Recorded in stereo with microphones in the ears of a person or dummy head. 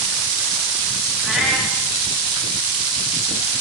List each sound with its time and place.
1.2 s a cat meowing: 5° right (ahead or behind), 1.0 m